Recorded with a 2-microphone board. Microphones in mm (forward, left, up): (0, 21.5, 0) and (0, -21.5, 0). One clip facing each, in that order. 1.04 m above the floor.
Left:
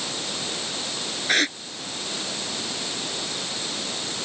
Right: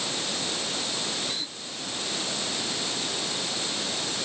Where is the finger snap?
I don't hear a finger snap.